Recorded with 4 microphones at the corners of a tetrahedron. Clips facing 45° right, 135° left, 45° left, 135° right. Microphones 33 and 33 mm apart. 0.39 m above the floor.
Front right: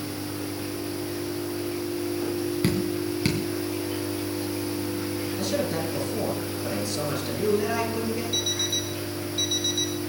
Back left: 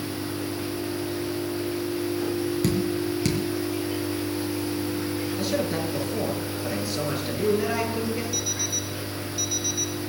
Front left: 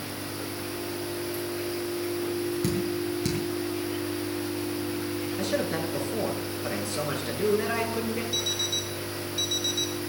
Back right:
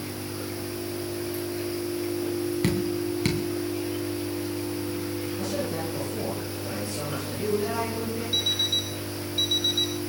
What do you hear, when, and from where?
2.6 s dripping: 100° right, 3 m
5.4 s a man speaking: 55° left, 5.5 m
8.3 s an alarm clock: 80° right, 0.9 m